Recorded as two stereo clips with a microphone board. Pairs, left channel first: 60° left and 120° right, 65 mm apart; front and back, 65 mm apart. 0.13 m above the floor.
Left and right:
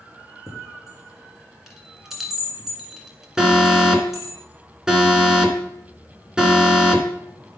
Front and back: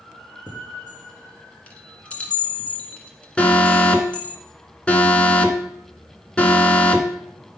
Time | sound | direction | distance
0.5 | a chime | 40° right | 1.5 m
3.4 | an alarm | 50° right | 1.3 m